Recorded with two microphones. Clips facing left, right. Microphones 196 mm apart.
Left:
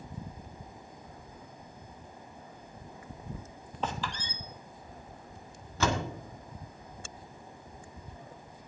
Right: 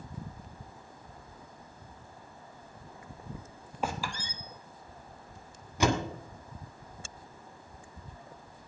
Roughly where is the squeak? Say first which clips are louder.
Right 1 dB; centre.